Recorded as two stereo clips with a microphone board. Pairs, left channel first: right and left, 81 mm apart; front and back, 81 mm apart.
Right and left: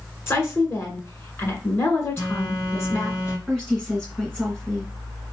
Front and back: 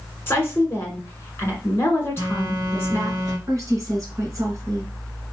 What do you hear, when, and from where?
0.3 s a woman speaking: 50° right, 1.6 m
2.2 s a phone buzzing: 135° right, 1.8 m
3.5 s a woman speaking: 170° right, 2 m